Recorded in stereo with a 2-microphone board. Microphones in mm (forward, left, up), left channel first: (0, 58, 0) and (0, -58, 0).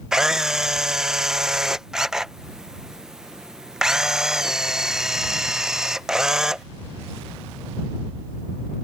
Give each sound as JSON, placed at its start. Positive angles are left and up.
{"t": 0.1, "sound": "a camera shutter", "side_deg": -5}